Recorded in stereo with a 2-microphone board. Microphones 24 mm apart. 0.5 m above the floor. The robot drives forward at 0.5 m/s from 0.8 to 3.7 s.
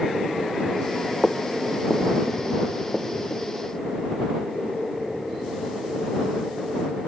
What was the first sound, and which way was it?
Footsteps, 20° left (ahead or behind).